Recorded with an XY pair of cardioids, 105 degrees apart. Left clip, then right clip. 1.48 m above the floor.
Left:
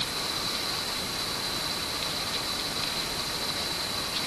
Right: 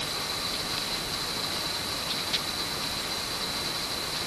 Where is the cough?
No cough in this recording.